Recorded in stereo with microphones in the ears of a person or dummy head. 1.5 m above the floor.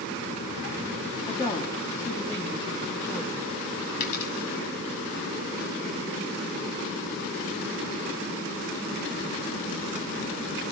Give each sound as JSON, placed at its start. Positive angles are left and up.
{"t": 1.3, "sound": "a woman speaking", "side_deg": 15, "distance_m": 2.0}
{"t": 4.0, "sound": "a dropped coin", "side_deg": 40, "distance_m": 5.5}